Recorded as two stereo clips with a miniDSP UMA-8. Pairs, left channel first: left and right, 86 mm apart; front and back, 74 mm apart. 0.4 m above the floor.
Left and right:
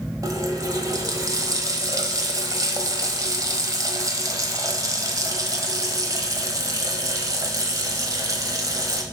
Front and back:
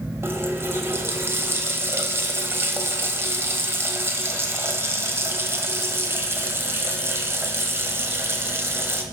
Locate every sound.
0.2 s a running tap: 130° right, 1.4 m